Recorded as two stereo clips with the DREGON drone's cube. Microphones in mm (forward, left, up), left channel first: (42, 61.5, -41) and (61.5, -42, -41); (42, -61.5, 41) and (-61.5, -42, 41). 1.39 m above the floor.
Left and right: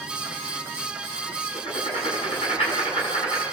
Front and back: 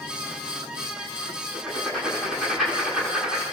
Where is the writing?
80° left, 9.5 m.